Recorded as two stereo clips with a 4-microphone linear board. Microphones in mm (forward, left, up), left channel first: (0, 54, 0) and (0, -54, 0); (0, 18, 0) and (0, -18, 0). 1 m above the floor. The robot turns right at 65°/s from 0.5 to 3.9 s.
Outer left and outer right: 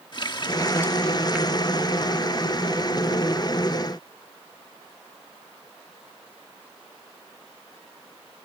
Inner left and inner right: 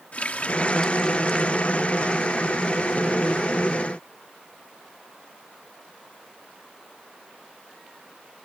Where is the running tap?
45° left (ahead or behind); by 2.2 s 65° right (ahead or behind).